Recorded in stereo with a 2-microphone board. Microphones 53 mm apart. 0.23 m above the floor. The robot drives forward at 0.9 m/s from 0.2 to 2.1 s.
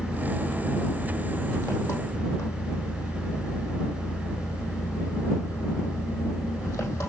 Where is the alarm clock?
I don't hear an alarm clock.